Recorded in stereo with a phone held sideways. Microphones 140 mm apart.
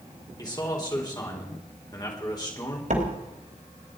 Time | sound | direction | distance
0.4 | a man speaking | 30° left (ahead or behind) | 4 m
2.9 | a door slam | 65° right (ahead or behind) | 3 m